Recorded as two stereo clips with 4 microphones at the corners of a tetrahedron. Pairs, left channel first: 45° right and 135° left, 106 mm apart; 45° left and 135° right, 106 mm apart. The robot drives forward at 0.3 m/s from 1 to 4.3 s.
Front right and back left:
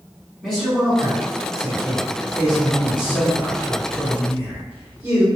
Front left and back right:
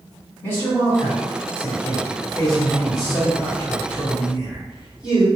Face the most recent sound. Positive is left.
turn(degrees=150)